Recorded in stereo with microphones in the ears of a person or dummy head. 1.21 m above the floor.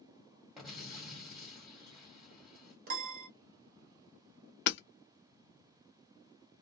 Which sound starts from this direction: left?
Hammering, at 4.7 s.